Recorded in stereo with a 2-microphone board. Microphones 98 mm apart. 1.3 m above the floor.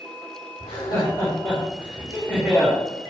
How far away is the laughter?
About 4.5 m.